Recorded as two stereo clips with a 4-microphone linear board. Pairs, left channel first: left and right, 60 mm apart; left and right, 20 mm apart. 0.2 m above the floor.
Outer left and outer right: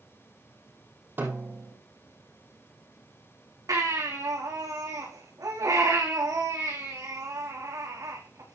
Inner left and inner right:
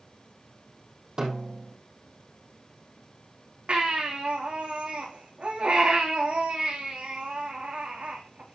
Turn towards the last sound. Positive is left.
turn(degrees=-80)